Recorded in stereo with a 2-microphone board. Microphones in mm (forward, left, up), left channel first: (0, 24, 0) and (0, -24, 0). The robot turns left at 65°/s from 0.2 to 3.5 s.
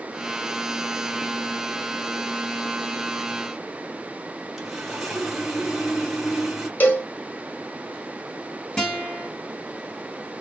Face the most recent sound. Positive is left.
turn(degrees=20)  # may be behind; listen again after turning